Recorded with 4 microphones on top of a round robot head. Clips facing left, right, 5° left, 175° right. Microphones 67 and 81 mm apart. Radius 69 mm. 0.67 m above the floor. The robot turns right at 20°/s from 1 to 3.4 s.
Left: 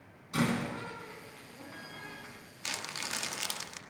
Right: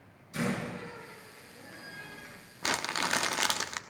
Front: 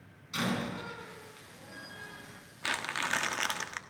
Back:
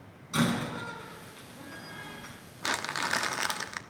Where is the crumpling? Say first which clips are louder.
Right 9 dB, back 2 dB; 110° right, 1.2 m; by 3.8 s 95° right, 1.2 m.